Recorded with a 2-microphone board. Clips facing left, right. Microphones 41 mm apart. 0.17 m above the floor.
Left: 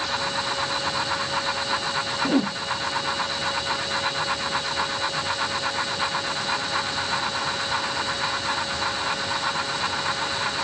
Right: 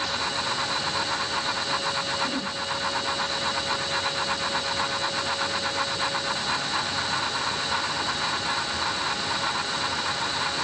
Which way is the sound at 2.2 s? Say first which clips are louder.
Left 7 dB; 50° left (ahead or behind).